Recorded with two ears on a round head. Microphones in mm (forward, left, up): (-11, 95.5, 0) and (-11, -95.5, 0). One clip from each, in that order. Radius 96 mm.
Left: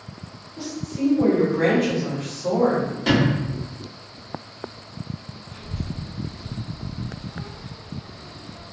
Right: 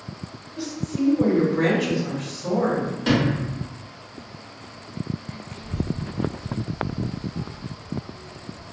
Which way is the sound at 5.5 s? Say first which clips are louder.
Right 5 dB; 55° left (ahead or behind).